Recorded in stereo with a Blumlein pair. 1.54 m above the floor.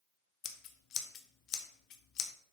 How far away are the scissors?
About 0.8 m.